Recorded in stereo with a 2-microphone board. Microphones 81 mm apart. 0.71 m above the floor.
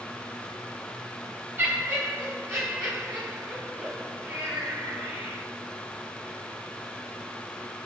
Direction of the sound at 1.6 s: 30° right (ahead or behind).